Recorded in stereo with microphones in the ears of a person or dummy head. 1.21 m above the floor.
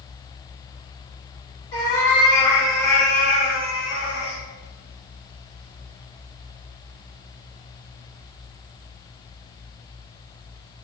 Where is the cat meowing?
25° left (ahead or behind), 1.7 m; by 4.4 s 35° right (ahead or behind), 1.1 m.